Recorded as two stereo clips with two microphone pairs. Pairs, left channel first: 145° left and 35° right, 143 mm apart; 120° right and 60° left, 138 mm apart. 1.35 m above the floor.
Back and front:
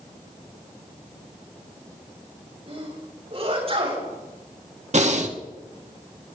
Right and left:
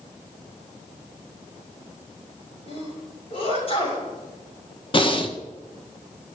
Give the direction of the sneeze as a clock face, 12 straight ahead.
3 o'clock.